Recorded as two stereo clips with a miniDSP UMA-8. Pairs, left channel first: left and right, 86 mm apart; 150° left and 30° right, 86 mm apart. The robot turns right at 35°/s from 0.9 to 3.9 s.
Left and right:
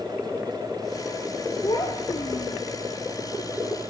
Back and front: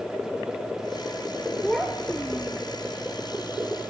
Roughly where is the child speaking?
Ahead left.